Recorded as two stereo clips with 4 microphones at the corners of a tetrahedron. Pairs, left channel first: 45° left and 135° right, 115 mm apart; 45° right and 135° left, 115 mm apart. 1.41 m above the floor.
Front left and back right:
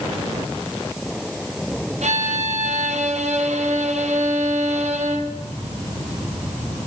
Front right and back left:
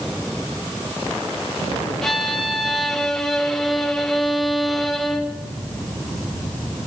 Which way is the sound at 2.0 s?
130° right.